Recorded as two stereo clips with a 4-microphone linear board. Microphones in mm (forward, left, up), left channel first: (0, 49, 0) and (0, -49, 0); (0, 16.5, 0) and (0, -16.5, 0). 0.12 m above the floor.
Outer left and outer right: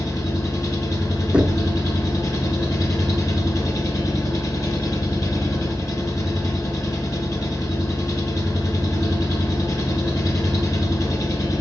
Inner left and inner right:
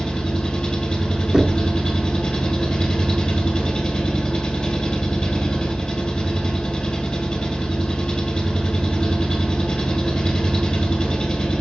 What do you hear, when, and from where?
0.0 s an engine running: 35° left (ahead or behind), 2.5 m
1.3 s knocking: 10° right (ahead or behind), 1.0 m